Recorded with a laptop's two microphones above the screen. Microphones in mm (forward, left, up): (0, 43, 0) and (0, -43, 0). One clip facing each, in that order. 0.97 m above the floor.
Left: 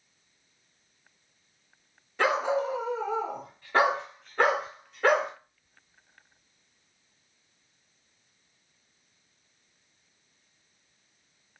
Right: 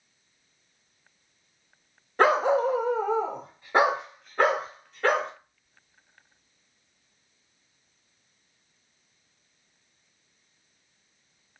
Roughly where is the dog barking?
Right.